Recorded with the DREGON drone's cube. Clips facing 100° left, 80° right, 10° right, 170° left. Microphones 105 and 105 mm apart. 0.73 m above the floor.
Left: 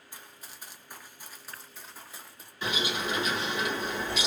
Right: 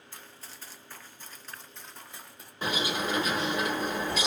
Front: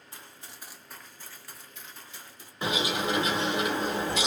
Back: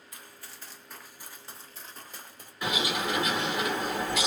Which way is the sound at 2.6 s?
60° right.